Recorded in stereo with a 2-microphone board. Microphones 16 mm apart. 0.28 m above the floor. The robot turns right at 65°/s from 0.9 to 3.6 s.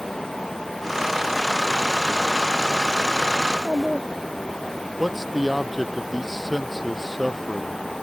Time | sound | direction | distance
3.4 | a child speaking | centre (ahead or behind) | ?
5.0 | a man speaking | centre (ahead or behind) | ?